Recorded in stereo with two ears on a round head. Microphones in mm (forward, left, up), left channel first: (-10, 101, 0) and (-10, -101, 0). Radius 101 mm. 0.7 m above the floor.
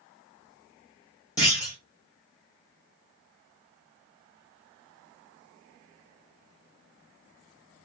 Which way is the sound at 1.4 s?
15° left (ahead or behind).